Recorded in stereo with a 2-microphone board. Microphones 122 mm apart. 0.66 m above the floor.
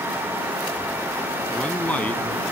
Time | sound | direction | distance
1.5 | a man speaking | 10° left (ahead or behind) | ?